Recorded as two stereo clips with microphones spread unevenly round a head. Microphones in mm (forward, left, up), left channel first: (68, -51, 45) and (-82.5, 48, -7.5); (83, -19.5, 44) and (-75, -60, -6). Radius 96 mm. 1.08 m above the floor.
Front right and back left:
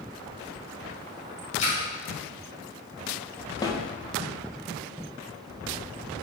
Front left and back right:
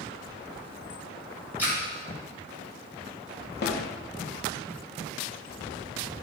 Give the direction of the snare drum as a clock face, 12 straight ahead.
10 o'clock.